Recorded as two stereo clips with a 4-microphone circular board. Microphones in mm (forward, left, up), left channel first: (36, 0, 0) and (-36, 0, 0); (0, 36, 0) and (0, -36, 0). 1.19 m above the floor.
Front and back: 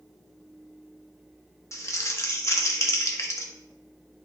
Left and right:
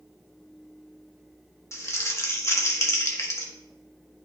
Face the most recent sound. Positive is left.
turn(degrees=45)